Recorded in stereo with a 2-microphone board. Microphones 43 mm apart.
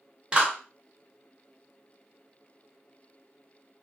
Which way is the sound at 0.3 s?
20° right (ahead or behind).